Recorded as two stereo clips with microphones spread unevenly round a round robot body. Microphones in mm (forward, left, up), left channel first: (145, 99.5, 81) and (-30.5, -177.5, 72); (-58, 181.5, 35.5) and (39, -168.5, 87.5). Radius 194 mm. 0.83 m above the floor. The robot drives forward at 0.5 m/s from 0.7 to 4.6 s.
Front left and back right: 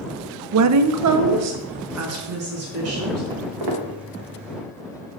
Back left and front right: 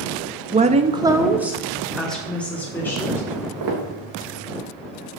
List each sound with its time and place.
0.5 s a woman speaking: 150° right, 0.5 m; by 3.2 s 170° right, 1.7 m
3.3 s footsteps: 110° right, 3.5 m; by 3.9 s 115° right, 3.5 m